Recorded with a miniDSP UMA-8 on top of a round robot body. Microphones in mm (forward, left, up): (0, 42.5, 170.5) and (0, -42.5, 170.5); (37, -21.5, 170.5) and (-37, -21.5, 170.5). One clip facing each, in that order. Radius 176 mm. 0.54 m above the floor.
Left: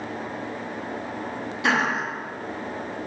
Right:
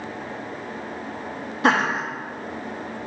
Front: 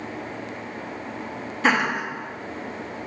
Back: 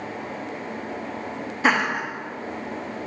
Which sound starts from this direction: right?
Laughter, at 1.6 s.